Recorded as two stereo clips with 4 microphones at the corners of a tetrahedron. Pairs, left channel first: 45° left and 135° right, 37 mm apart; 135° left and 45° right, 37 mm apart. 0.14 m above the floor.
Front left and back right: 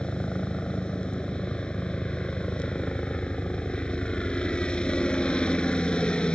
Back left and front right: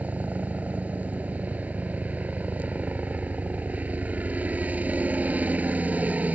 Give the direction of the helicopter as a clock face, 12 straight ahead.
12 o'clock.